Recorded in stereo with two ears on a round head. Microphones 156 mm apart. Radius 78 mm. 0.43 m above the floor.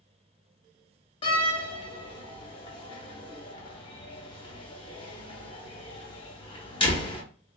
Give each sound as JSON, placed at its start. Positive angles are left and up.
{"t": 1.2, "sound": "a door slam", "side_deg": 30, "distance_m": 0.8}